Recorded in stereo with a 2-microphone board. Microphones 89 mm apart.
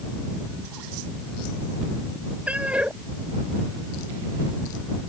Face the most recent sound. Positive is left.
turn(degrees=-15)  # may be behind; listen again after turning